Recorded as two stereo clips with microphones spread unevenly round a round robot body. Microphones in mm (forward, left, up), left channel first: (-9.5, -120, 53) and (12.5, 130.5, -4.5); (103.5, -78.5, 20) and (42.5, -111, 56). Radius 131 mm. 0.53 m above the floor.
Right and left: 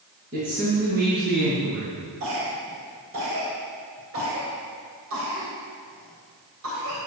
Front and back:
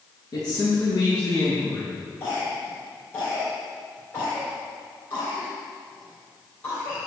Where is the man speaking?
35° left, 5 m; by 1.9 s 40° left, 6 m.